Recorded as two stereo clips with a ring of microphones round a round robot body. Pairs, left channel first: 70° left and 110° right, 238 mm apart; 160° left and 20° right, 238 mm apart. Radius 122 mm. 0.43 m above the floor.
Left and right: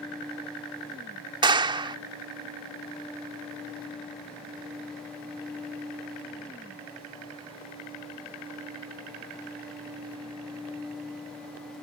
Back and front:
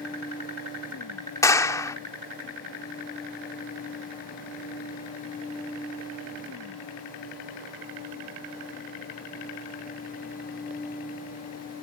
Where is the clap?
145° right.